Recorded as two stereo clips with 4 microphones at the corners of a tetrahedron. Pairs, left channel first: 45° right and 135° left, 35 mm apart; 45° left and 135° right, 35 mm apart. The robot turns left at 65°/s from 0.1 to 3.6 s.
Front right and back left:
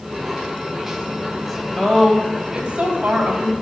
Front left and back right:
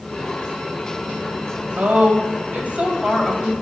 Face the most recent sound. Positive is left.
turn(degrees=125)